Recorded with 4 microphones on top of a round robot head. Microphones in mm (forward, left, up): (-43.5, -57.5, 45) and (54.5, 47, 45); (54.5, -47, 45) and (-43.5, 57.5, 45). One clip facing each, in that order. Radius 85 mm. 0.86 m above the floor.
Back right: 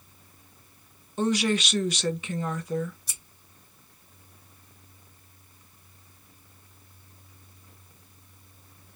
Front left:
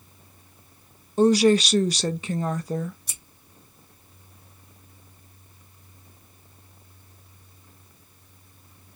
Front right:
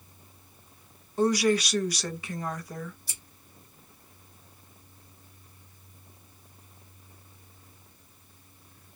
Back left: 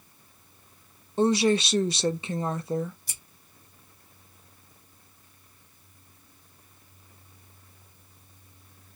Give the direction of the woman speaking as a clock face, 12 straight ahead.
9 o'clock.